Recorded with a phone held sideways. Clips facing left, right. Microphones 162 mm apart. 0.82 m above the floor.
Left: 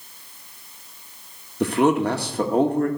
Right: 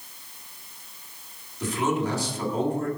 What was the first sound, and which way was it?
A man speaking, 65° left (ahead or behind).